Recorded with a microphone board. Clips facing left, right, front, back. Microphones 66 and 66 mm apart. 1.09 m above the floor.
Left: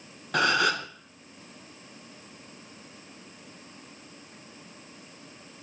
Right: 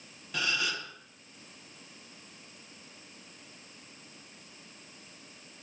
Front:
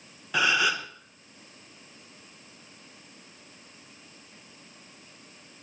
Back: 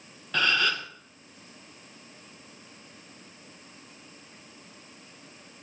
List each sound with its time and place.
0.3 s a gasp: 80° left, 0.8 m